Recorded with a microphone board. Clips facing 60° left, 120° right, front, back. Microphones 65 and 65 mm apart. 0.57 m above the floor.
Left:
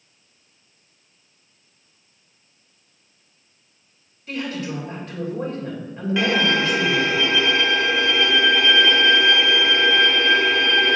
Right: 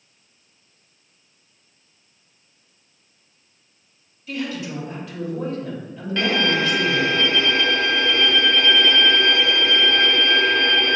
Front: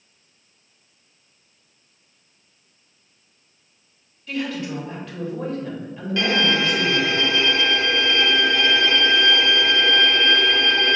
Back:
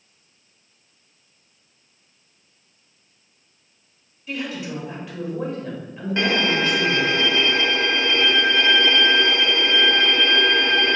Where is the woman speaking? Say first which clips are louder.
Even, front 2 dB; 100° left, 2.5 m.